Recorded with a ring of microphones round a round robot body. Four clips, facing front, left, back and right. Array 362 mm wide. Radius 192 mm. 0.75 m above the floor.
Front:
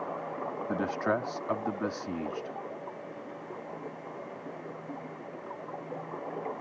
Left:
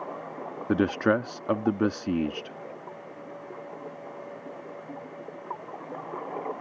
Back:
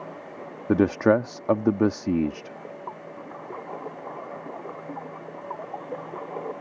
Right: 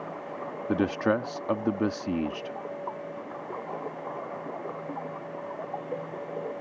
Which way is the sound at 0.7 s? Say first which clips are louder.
Left 2 dB, back 11 dB; 165° left.